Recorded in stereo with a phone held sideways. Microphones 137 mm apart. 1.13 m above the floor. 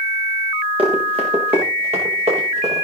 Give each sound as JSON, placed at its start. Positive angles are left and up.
{"t": 0.8, "sound": "running footsteps", "side_deg": -40, "distance_m": 5.0}